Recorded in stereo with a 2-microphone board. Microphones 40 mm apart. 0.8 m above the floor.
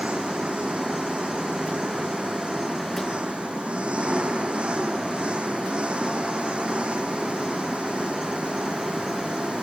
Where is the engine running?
30° right (ahead or behind).